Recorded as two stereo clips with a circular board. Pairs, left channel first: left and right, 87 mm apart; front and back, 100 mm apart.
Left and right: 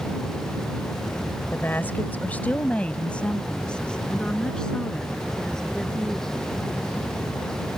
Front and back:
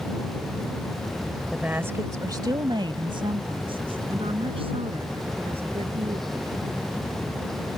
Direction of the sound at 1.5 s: 110° left.